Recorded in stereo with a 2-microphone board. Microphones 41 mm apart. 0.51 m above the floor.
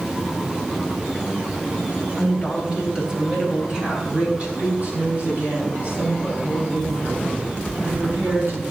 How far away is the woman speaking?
About 3 m.